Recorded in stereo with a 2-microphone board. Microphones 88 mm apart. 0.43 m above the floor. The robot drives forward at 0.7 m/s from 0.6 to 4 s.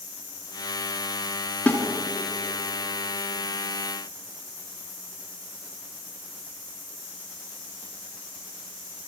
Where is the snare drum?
15° left (ahead or behind), 3.5 m.